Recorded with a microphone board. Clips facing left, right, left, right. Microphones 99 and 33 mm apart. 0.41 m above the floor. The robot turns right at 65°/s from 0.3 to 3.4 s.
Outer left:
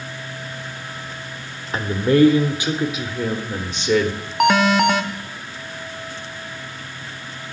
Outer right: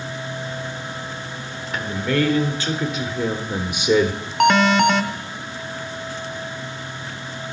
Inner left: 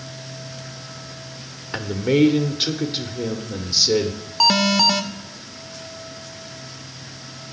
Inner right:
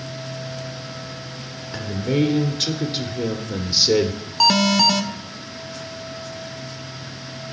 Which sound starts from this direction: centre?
An alarm, at 4.4 s.